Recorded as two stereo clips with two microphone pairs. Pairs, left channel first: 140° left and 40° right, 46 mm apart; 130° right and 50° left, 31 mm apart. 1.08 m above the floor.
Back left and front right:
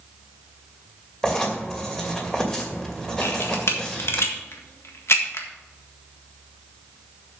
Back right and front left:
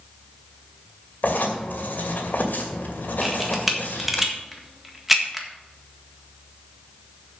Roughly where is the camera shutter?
Behind left.